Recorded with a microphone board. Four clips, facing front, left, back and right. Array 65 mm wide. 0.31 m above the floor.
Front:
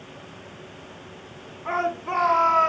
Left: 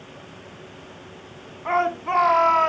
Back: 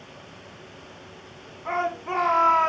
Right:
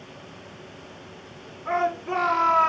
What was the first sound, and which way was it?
A shout, 90° left.